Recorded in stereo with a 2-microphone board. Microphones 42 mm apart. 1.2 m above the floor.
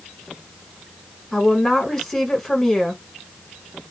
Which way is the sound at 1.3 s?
15° left (ahead or behind).